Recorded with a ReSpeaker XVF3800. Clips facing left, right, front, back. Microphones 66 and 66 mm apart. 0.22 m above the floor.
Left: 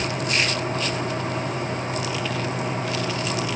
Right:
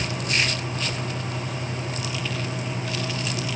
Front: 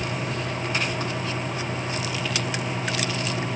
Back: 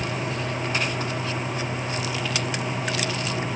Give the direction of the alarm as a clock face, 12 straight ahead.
I don't hear an alarm.